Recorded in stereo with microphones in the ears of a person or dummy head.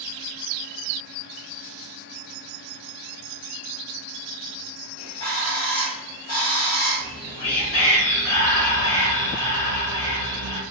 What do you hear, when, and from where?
5.0 s a bird: 35° left (ahead or behind), 1.8 m
7.0 s whispering: 60° left (ahead or behind), 2.0 m